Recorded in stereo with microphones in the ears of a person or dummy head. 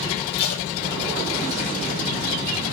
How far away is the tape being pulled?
About 3.5 m.